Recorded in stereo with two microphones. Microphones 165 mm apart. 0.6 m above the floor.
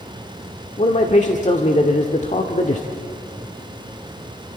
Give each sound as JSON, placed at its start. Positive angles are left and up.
{"t": 0.8, "sound": "a man speaking", "side_deg": 40, "distance_m": 1.4}